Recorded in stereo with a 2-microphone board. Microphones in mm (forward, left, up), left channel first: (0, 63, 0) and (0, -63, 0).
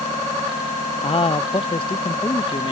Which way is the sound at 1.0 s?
50° left (ahead or behind).